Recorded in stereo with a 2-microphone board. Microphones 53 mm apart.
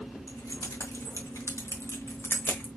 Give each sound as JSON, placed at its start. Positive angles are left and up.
{"t": 0.3, "sound": "keys jangling", "side_deg": 80, "distance_m": 2.0}